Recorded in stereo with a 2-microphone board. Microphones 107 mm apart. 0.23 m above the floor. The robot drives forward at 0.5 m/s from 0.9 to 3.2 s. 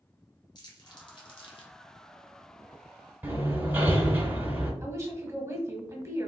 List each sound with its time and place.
0.6 s crumpling: 40° left (ahead or behind), 1.0 m; by 1.7 s 60° left (ahead or behind), 0.8 m
3.2 s hammering: 20° right (ahead or behind), 0.9 m
4.8 s a woman speaking: 25° right (ahead or behind), 1.1 m